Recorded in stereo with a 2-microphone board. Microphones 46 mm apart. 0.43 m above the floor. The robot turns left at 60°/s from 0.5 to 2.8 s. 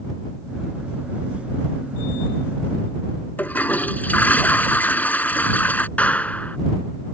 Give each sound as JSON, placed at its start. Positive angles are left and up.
{"t": 3.4, "sound": "a toilet flushing", "side_deg": 40}
{"t": 6.0, "sound": "a clap", "side_deg": 30}